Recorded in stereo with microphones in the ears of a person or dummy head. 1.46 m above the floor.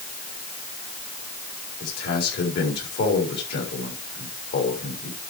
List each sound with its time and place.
1.8 s a man speaking: 60° left (ahead or behind), 4 m